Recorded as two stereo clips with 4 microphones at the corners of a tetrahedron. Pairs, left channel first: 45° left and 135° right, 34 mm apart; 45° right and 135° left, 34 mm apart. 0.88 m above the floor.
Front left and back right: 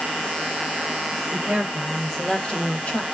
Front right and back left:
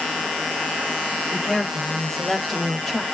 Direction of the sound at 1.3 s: 130° right.